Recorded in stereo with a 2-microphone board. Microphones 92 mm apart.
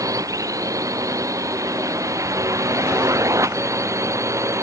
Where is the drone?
35° right (ahead or behind); by 4.6 s 30° right (ahead or behind).